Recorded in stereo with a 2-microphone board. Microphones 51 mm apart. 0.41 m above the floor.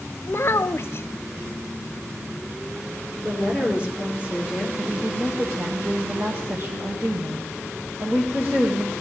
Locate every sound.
0.3 s a child speaking: 50° left (ahead or behind), 0.5 m
3.2 s a woman speaking: 20° right (ahead or behind), 7 m
4.8 s a woman speaking: 55° right (ahead or behind), 2 m